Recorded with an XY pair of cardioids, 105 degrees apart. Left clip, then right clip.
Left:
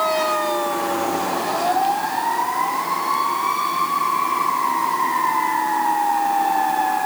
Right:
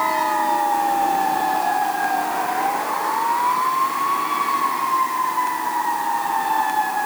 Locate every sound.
Only background noise.